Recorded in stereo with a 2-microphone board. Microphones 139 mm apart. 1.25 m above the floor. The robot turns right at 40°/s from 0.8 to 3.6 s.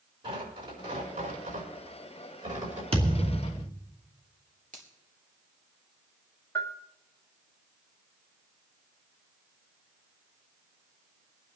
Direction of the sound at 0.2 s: 40° right (ahead or behind).